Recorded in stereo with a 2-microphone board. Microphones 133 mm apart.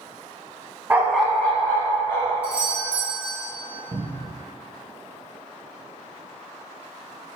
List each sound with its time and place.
0.9 s a dog barking: 15° right (ahead or behind), 0.5 m; by 2.3 s 20° left (ahead or behind), 1.2 m
2.4 s a doorbell: 15° left (ahead or behind), 1.4 m
3.9 s a cupboard door: 30° right (ahead or behind), 0.5 m